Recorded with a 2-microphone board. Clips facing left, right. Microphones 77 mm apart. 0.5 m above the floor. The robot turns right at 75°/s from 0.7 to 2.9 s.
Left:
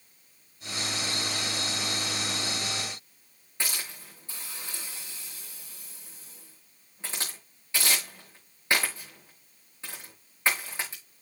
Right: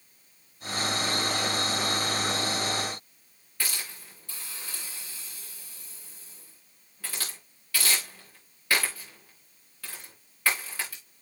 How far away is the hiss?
About 8.5 m.